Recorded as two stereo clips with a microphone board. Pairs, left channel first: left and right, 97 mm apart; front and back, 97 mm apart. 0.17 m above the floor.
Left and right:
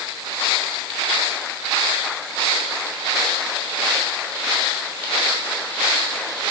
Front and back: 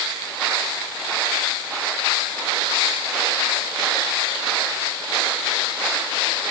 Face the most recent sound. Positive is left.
No sound to turn to.